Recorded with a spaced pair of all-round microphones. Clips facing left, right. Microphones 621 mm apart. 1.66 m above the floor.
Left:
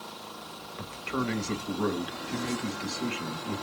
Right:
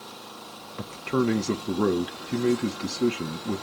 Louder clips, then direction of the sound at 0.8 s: Right 8 dB; 65° right (ahead or behind).